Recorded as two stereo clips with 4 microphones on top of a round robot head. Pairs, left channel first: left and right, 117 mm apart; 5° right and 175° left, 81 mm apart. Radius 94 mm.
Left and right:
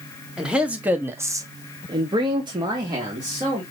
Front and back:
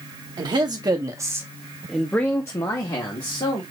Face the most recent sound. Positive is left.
turn(degrees=-30)